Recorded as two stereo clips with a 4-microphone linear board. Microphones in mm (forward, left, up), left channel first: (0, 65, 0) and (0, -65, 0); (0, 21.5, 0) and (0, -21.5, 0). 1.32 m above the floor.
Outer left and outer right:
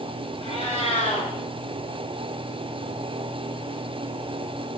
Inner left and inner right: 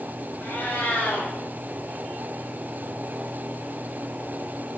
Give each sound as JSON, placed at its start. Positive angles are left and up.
{"t": 0.4, "sound": "a cat meowing", "side_deg": 50, "distance_m": 5.0}